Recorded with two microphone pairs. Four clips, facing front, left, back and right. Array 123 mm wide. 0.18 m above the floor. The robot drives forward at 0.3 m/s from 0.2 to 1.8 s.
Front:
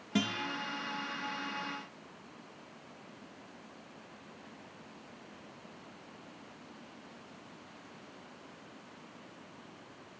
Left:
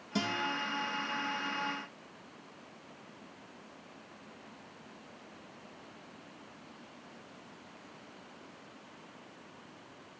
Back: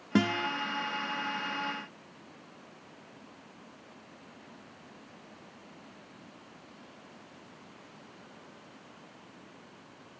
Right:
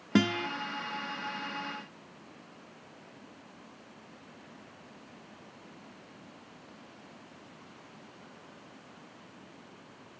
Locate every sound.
0.1 s a guitar: 120° right, 0.6 m; by 0.5 s 125° right, 0.7 m